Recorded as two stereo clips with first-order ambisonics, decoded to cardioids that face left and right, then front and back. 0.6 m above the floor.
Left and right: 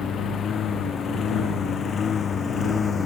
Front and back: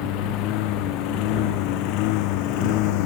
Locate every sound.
0.0 s a lawn mower: 25° left; by 3.1 s 20° left